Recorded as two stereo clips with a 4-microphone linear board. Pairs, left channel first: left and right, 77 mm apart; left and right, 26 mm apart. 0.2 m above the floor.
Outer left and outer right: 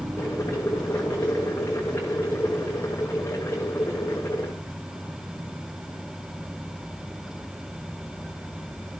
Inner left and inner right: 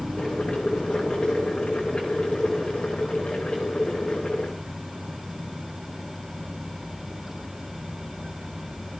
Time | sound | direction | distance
0.2 | boiling | 35° left (ahead or behind) | 6 m